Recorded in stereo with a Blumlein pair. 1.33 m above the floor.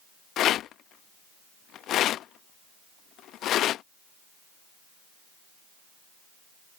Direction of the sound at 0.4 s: 30° left.